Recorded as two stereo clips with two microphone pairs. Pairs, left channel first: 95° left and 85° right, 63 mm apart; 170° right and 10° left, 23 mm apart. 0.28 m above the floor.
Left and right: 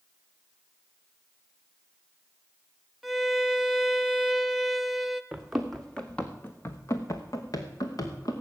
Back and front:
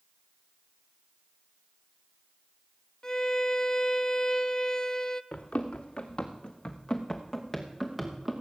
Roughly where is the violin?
Behind.